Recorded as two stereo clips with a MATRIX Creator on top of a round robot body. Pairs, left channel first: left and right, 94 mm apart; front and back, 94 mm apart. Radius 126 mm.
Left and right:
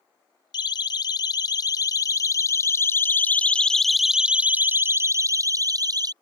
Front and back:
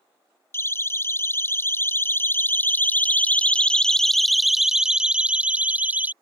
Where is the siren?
60° left; by 6.1 s 115° right.